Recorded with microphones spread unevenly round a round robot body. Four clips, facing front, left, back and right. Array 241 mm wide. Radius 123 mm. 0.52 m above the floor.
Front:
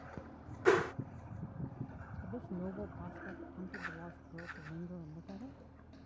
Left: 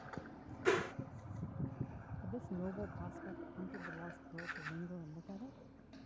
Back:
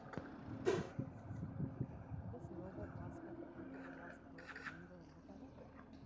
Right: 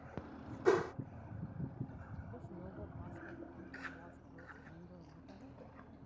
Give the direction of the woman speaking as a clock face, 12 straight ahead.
11 o'clock.